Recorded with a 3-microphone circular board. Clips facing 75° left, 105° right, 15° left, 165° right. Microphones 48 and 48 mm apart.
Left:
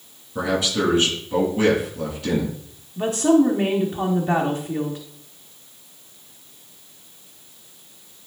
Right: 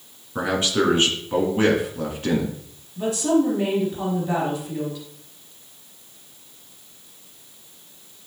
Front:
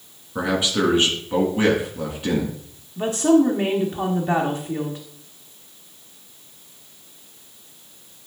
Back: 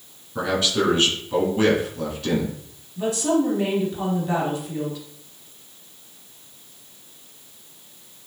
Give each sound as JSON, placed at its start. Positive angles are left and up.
{"t": 0.3, "sound": "a man speaking", "azimuth_deg": -50, "distance_m": 2.5}
{"t": 3.0, "sound": "a woman speaking", "azimuth_deg": 50, "distance_m": 1.2}